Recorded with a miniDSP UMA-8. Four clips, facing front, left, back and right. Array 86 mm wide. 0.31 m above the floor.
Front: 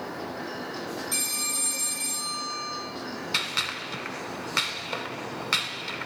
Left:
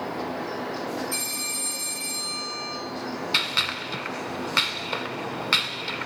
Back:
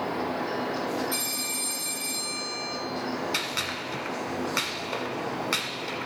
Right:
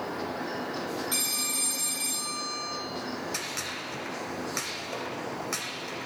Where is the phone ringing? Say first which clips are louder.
Left 1 dB, back 2 dB; 75° right, 3 m.